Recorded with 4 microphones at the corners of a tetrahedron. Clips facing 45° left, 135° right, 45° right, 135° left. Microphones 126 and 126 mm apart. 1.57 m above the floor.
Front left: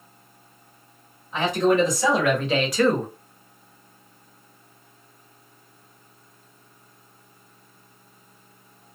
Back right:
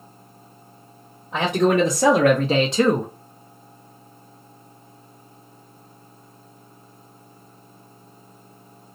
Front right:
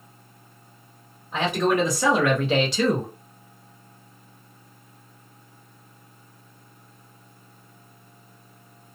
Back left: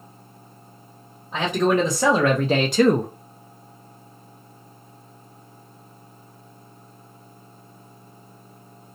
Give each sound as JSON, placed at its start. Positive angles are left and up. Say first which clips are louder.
{"t": 1.3, "sound": "a man speaking", "louder": "back right 1 dB, back left 2 dB", "azimuth_deg": -155, "distance_m": 1.1}